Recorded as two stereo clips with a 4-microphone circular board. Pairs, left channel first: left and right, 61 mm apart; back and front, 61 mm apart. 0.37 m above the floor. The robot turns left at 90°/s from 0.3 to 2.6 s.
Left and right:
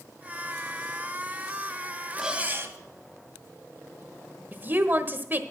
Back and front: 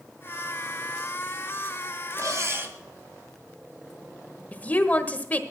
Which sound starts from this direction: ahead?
Cutlery clinking, at 2.2 s.